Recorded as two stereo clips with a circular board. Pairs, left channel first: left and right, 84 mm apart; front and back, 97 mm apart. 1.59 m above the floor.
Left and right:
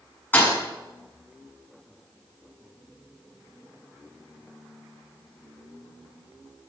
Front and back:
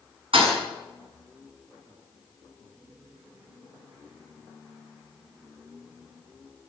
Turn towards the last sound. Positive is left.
turn(degrees=160)